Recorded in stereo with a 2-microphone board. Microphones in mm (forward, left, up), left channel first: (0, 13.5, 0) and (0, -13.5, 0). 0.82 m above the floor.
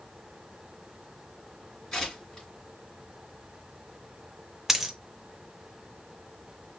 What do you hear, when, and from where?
1.9 s tearing paper: 25° left (ahead or behind), 2.5 m
4.7 s a dropped coin: 15° right (ahead or behind), 0.6 m